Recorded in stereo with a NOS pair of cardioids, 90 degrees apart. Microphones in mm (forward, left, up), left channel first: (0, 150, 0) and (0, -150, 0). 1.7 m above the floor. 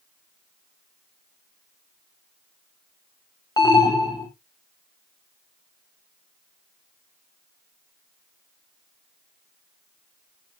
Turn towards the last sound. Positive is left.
turn(degrees=15)